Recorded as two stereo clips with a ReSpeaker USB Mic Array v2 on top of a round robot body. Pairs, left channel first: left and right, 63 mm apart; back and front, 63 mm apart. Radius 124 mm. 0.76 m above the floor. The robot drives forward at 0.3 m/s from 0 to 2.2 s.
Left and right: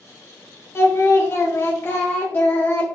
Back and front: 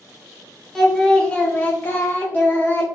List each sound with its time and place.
0.8 s singing: 100° left, 0.9 m; by 2.9 s 135° left, 1.1 m